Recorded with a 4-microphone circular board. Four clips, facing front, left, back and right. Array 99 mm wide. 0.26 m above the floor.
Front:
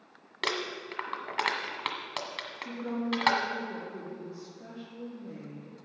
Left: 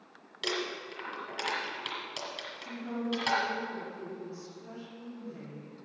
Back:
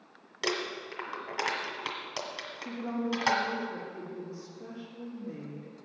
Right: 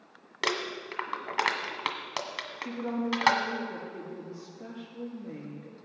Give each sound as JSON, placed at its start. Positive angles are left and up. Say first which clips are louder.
{"t": 0.4, "sound": "crumpling", "louder": "right 3 dB, even", "azimuth_deg": -65, "distance_m": 1.7}
{"t": 2.6, "sound": "a woman speaking", "louder": "right 5 dB, even", "azimuth_deg": -90, "distance_m": 5.5}